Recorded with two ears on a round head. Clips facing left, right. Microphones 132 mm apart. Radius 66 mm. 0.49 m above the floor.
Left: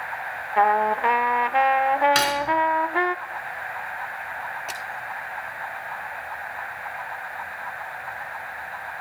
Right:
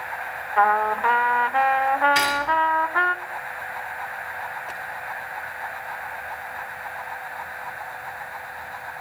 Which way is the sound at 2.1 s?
75° left (ahead or behind).